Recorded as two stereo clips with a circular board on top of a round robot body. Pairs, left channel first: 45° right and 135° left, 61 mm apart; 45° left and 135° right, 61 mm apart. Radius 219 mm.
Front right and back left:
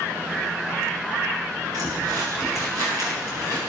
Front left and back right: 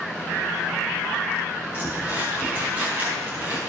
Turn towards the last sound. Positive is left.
turn(degrees=155)